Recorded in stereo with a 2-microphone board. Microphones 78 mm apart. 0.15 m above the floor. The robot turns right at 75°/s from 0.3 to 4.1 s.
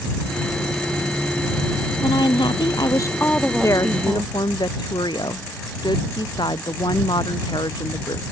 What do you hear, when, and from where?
2.0 s a woman speaking: 60° left; by 4.3 s 145° right
3.6 s a woman speaking: 40° left; by 8.2 s 75° left